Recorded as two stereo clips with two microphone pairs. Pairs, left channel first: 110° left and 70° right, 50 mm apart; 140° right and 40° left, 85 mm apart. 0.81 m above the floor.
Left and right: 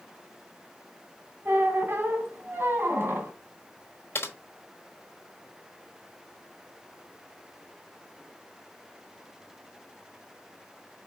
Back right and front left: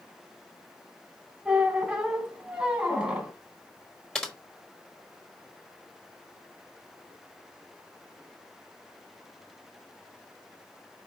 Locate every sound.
1.4 s a squeak: 35° right, 1.2 m
4.2 s typing on a keyboard: 135° left, 1.3 m